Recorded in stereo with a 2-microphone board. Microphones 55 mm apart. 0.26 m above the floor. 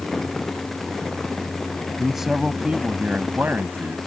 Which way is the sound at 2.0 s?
Centre (ahead or behind).